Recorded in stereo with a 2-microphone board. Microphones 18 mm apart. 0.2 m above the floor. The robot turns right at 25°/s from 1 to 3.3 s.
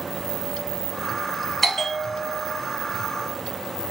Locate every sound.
1.6 s a bell: 15° left (ahead or behind), 1.3 m; by 2.6 s centre (ahead or behind), 1.3 m